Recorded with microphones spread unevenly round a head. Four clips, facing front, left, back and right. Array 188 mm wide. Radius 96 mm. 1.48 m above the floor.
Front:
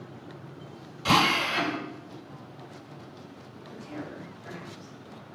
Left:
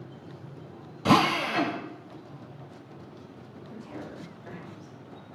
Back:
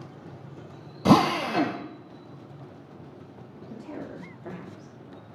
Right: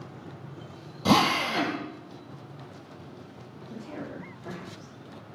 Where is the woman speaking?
160° right, 3.5 m.